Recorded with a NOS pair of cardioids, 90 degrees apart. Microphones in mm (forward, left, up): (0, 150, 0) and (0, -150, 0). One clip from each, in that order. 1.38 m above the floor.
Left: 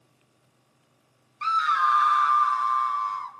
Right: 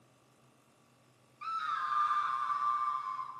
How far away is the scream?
About 0.6 m.